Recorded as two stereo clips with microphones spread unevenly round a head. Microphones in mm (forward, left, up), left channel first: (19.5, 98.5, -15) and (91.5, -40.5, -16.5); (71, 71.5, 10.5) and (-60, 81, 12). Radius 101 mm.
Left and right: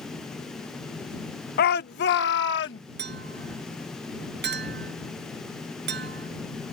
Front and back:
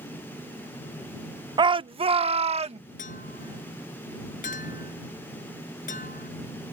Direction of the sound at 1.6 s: 125° left.